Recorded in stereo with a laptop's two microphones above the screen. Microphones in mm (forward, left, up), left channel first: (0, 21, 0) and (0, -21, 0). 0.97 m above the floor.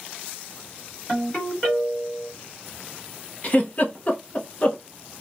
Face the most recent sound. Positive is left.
turn(degrees=40)  # may be behind; listen again after turning